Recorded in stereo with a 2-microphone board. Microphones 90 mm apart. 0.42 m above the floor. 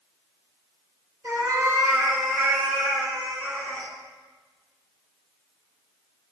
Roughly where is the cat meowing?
Right.